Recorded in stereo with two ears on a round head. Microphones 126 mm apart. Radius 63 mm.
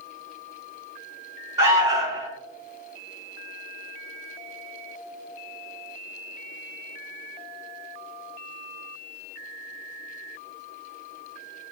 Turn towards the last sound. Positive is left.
turn(degrees=-25)  # may be behind; listen again after turning